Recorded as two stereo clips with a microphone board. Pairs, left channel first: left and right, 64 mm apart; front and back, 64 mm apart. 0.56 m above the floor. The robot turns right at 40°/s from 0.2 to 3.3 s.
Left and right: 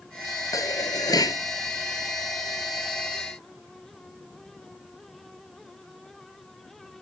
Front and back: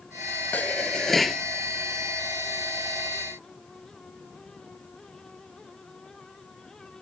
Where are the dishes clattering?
60° left; by 1.4 s 95° left.